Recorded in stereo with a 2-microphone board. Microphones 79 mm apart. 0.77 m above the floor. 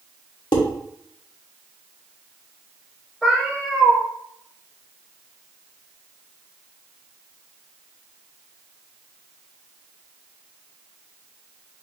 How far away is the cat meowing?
About 1.4 m.